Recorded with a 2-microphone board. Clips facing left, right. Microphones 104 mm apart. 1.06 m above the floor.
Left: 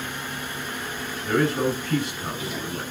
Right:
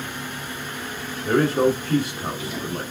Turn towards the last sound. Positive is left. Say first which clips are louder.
# right 4 dB
turn(degrees=-45)  # may be behind; listen again after turning